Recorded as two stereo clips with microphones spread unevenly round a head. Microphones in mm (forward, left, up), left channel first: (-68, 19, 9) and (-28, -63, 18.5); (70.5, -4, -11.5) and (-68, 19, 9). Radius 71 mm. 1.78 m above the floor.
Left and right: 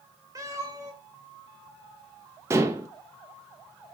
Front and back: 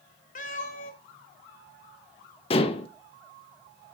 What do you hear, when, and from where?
0.3 s a cat meowing: 20° right, 1.9 m
2.5 s dishes clattering: 40° right, 1.1 m